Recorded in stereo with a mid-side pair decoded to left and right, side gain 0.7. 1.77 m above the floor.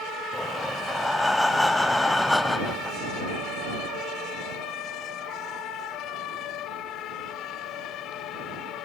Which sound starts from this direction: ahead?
Breathing, at 0.3 s.